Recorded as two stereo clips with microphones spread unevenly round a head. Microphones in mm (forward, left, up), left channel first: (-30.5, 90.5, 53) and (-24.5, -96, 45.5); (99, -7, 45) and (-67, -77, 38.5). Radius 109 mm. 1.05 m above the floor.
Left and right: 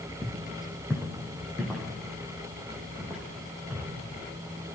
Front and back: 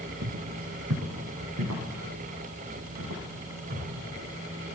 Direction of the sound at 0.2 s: Straight behind.